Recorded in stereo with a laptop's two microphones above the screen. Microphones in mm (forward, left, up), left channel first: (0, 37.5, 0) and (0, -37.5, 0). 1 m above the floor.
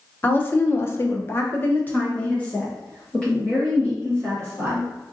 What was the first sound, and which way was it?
A woman speaking, 25° left (ahead or behind).